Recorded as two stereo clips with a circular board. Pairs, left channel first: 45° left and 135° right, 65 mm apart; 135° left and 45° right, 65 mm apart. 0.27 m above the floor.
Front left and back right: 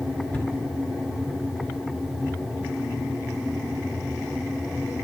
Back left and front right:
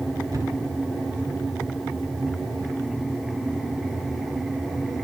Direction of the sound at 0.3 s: 15° right.